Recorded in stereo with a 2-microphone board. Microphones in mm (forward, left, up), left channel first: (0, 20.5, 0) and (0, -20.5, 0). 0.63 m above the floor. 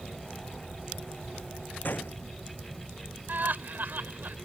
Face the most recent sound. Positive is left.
turn(degrees=-50)  # may be behind; listen again after turning